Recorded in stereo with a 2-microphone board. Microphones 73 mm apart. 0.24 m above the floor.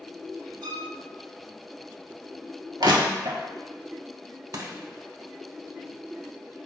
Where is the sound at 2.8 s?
70° right (ahead or behind), 0.7 m.